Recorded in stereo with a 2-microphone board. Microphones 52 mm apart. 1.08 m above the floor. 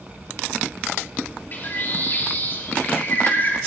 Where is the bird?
45° left (ahead or behind), 2 m.